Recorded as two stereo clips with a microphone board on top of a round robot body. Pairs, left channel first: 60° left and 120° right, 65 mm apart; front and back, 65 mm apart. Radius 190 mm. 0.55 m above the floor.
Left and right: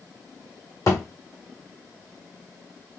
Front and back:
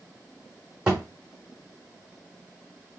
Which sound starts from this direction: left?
A thud, at 0.9 s.